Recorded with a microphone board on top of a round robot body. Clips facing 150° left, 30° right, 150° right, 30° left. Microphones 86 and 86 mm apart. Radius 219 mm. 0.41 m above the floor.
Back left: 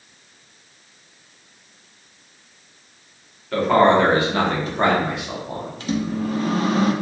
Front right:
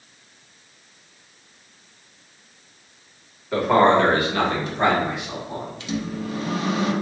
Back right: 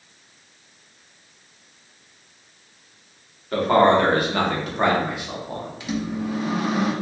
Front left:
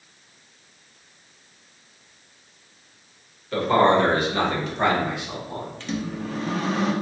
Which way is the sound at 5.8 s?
135° left.